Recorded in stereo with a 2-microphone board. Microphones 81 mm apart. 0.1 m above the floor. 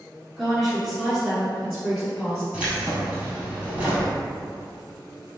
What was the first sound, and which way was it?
A woman speaking, centre (ahead or behind).